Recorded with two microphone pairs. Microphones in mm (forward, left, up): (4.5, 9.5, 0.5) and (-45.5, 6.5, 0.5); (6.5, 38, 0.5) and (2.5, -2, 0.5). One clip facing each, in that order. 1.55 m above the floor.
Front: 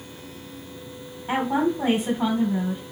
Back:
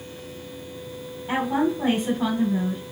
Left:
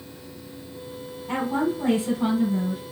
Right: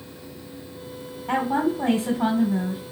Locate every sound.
1.3 s a woman speaking: 70° right, 2 m